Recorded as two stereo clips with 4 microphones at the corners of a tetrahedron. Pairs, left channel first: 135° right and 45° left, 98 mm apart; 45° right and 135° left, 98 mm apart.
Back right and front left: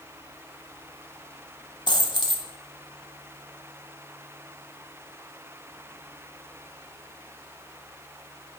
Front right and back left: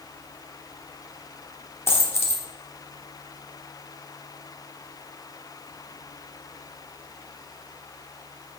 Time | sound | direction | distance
1.9 | a dropped coin | 105° right | 0.8 m